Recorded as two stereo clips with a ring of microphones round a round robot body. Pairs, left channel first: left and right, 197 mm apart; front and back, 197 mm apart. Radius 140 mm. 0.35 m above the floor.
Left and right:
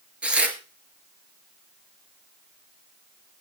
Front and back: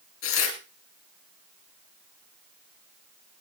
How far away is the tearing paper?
About 3.5 m.